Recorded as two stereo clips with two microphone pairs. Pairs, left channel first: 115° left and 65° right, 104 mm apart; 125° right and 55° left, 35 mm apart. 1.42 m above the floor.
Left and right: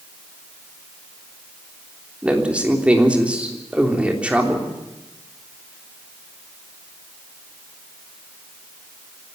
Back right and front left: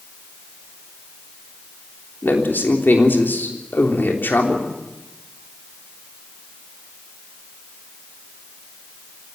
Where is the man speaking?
140° right, 3 m.